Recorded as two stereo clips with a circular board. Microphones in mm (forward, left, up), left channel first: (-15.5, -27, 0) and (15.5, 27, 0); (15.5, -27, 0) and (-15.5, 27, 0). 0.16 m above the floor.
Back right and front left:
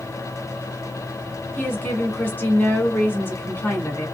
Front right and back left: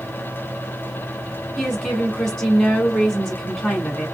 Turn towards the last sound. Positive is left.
turn(degrees=-135)